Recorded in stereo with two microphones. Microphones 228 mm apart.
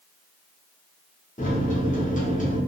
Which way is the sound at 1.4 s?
35° left (ahead or behind).